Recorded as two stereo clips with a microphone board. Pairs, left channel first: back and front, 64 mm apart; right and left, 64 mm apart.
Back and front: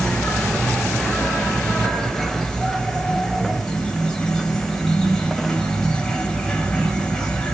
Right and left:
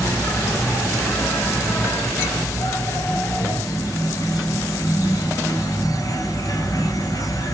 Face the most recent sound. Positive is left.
turn(degrees=-100)